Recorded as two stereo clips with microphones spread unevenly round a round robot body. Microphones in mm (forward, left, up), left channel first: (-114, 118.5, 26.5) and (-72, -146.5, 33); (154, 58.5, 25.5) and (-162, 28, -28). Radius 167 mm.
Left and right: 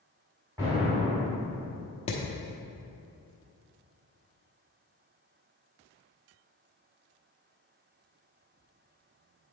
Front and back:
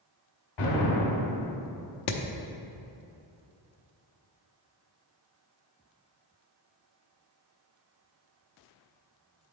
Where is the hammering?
40° left, 0.7 m.